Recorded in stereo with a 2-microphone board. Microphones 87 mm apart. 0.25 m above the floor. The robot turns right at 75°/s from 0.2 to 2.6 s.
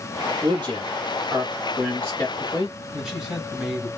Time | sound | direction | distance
0.4 | a man speaking | 55° right (ahead or behind) | 2.5 m
2.9 | a man speaking | 5° right (ahead or behind) | 2.5 m